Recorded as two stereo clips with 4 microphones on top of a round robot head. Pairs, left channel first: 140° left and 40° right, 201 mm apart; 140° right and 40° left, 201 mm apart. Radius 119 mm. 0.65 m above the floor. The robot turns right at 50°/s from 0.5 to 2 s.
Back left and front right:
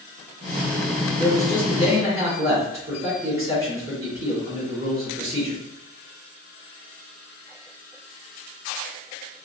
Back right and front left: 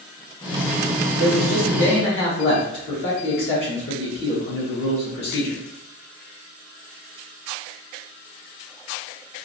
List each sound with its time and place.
1.2 s a man speaking: 160° right, 1.9 m; by 5.6 s 115° right, 1.9 m